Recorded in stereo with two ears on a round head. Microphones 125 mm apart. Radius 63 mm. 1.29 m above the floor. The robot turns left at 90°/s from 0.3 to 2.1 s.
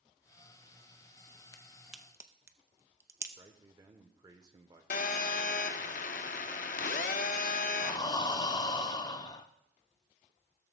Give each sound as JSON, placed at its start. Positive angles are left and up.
{"t": 1.5, "sound": "a crack", "side_deg": 25, "distance_m": 0.7}
{"t": 3.4, "sound": "a man speaking", "side_deg": -30, "distance_m": 1.0}
{"t": 4.9, "sound": "a phone buzzing", "side_deg": 65, "distance_m": 0.8}
{"t": 7.8, "sound": "breathing", "side_deg": 30, "distance_m": 0.7}